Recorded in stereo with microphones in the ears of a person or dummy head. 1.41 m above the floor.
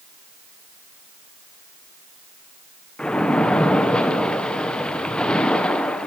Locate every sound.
3.0 s a splash: 5° left (ahead or behind), 1.1 m